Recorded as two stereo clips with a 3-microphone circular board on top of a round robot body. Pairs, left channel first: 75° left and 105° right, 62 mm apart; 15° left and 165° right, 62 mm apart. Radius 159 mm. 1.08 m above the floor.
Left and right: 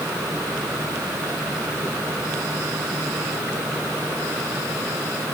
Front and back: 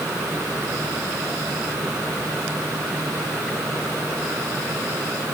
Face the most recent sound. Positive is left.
No sound to turn to.